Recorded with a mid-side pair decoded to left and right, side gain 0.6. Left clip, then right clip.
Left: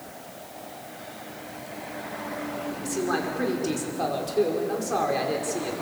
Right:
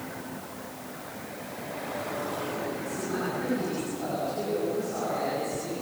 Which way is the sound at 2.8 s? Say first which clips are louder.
Left 4 dB; 65° left.